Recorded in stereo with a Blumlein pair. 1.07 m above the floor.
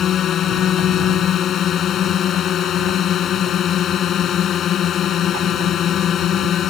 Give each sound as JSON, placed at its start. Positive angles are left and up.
{"t": 0.0, "sound": "a drone", "azimuth_deg": 30}